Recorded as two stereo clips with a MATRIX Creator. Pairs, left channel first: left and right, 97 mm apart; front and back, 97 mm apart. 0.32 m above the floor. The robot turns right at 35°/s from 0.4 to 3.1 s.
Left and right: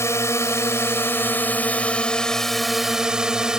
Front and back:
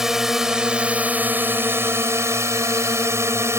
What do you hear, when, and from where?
0.0 s a drone: 100° left; by 3.6 s 165° right